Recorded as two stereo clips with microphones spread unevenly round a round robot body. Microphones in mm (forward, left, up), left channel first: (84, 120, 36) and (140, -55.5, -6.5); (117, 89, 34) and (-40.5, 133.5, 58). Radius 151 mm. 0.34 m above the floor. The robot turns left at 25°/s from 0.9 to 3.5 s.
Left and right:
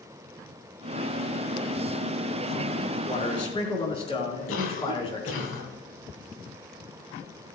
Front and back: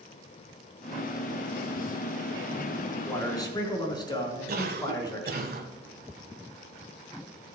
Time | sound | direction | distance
3.0 | a man speaking | 60° left | 5 m
4.5 | a cough | 140° left | 2.5 m